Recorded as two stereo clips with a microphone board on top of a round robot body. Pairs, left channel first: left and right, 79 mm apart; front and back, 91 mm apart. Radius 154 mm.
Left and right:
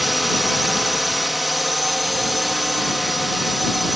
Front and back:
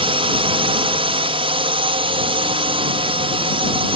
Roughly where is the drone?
Behind.